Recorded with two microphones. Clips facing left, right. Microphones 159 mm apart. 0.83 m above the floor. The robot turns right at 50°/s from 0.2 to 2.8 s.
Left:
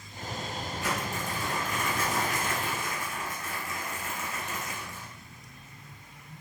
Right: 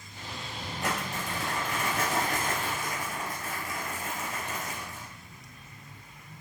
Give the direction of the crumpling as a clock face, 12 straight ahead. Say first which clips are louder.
Right 1 dB; 4 o'clock.